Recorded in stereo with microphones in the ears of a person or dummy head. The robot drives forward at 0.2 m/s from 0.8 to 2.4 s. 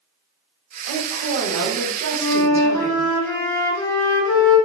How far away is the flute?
About 1.7 m.